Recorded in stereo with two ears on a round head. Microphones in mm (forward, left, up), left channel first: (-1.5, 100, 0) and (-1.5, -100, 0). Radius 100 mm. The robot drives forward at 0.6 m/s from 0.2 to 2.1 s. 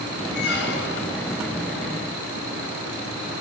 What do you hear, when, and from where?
0.3 s a squeak: 50° left (ahead or behind), 1.9 m; by 1.2 s 60° left (ahead or behind), 1.7 m